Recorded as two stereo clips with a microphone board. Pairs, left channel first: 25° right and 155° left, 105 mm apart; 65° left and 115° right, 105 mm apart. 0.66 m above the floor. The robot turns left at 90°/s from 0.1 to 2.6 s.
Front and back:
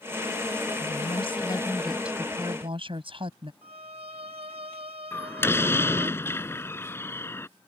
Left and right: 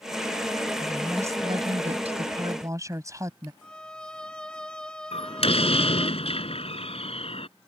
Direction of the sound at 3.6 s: 150° left.